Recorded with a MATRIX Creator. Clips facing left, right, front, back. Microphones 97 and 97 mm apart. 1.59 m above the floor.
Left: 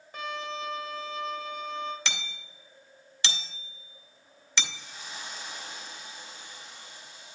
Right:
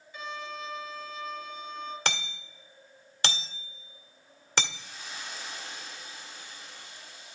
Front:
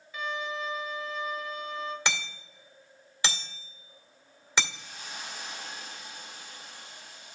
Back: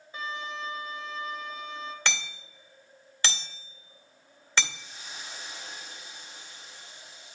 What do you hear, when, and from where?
0.1 s a violin: 120° left, 1.6 m
2.0 s hammering: 70° right, 2.0 m
4.7 s a hiss: 20° left, 3.5 m